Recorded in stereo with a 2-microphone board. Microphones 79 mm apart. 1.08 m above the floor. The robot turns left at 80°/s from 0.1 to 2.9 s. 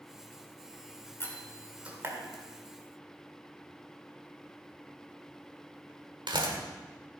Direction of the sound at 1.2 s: 35° left (ahead or behind).